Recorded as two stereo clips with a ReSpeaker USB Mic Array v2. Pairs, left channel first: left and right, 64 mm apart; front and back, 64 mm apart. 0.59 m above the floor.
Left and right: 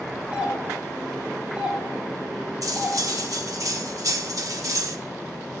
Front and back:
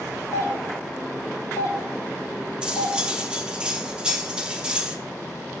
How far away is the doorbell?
About 2.5 m.